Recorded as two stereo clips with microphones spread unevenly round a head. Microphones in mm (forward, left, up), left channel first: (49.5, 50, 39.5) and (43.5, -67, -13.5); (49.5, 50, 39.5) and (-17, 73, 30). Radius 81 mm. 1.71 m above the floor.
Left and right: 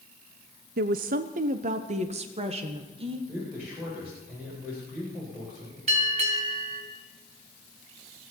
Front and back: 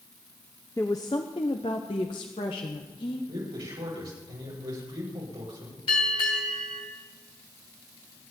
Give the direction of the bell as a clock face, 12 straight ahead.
2 o'clock.